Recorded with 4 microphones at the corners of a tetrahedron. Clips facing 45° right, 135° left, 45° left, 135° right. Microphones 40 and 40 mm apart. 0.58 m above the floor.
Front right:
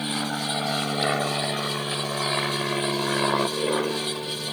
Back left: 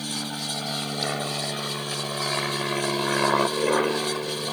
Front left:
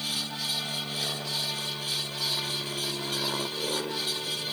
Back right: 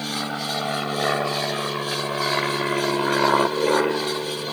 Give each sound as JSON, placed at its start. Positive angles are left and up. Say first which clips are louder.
{"t": 0.0, "sound": "an aircraft", "louder": "front right 4 dB, back right 6 dB", "azimuth_deg": -100}